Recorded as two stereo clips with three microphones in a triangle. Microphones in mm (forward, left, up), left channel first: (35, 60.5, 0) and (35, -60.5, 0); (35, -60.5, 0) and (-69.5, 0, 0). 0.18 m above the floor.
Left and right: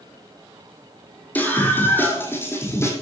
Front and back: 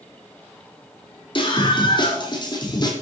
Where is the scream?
15° left, 7.5 m; by 2.9 s 25° left, 8 m.